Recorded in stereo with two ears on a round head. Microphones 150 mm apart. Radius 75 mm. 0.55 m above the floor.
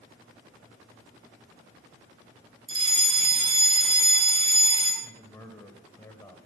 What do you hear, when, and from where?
2.7 s a fire alarm: 35° right (ahead or behind), 3.5 m
5.0 s a man speaking: 15° left (ahead or behind), 2.5 m